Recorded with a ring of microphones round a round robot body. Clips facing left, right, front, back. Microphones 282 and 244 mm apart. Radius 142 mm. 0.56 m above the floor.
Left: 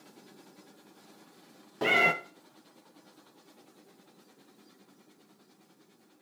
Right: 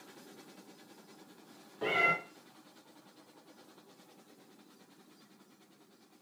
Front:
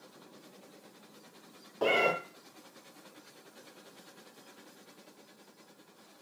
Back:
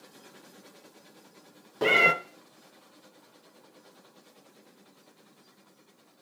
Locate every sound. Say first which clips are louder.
1.8 s a cat meowing: left 5 dB, back 2 dB; 115° left, 0.8 m